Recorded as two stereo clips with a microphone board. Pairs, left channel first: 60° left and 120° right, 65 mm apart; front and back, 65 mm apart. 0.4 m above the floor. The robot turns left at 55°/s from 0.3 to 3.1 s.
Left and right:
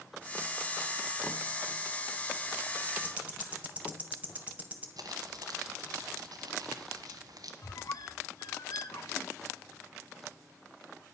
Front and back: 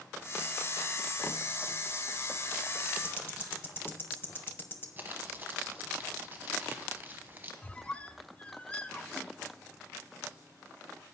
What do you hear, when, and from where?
3.0 s ticking: 55° right, 1.3 m
5.0 s crumpling: 120° right, 1.3 m
7.6 s a squeak: 70° left, 0.6 m